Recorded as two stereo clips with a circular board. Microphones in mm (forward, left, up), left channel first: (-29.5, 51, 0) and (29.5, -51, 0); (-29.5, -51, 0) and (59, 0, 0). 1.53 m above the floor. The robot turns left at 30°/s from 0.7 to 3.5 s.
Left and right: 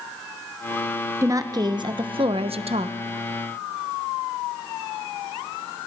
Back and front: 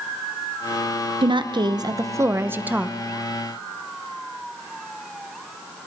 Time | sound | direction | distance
1.2 | a woman speaking | straight ahead | 0.9 m